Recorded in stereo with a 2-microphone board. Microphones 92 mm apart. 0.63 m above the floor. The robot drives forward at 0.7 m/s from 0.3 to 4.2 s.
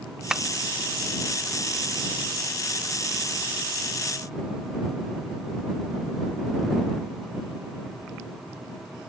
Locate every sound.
0.3 s tapping: 10° right (ahead or behind); by 0.4 s 5° right (ahead or behind)